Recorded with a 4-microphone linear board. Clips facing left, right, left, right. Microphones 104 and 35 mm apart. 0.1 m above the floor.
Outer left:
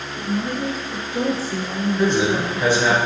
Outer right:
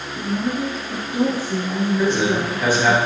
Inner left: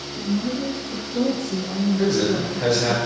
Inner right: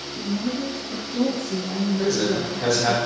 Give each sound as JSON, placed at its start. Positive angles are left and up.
{"t": 0.1, "sound": "a woman speaking", "side_deg": -45, "distance_m": 1.7}
{"t": 2.0, "sound": "a man speaking", "side_deg": 20, "distance_m": 1.4}